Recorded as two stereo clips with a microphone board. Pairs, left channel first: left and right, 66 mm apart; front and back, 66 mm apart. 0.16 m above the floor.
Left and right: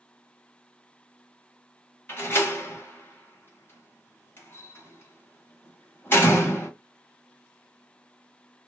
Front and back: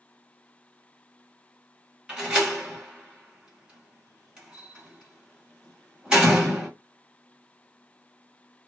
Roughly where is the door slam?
Left.